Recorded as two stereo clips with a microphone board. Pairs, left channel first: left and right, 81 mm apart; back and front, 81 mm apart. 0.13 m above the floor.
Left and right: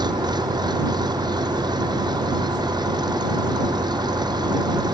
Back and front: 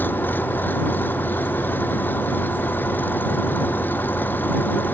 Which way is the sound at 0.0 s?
115° right.